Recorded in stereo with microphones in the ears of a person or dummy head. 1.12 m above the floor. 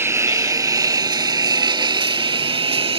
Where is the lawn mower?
20° right (ahead or behind); by 3.0 s 35° right (ahead or behind).